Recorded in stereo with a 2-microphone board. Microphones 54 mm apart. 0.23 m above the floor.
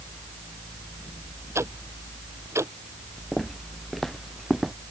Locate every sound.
1.6 s ticking: 55° right (ahead or behind)
3.3 s footsteps: centre (ahead or behind); by 4.7 s 5° right (ahead or behind)